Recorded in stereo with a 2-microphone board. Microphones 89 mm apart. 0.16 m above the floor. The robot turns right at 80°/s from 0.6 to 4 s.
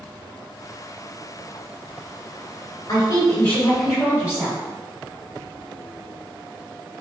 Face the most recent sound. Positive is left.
turn(degrees=-165)